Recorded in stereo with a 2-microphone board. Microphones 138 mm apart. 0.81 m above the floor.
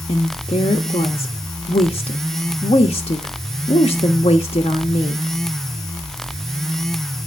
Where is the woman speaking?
45° left (ahead or behind), 0.9 m.